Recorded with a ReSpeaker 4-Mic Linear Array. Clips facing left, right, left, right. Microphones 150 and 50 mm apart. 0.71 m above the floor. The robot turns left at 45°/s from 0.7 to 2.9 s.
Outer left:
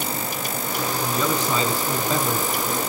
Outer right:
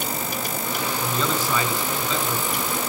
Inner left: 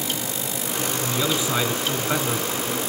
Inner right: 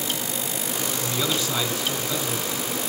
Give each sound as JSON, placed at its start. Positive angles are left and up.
{"t": 1.0, "sound": "a man speaking", "azimuth_deg": 180, "distance_m": 3.5}